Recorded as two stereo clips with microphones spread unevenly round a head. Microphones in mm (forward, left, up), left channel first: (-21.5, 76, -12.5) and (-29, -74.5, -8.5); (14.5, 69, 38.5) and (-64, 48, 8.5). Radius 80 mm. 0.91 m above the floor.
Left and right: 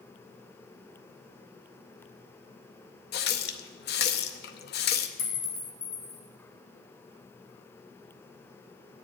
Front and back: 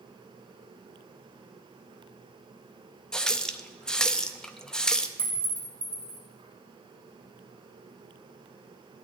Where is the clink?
115° left, 2.5 m.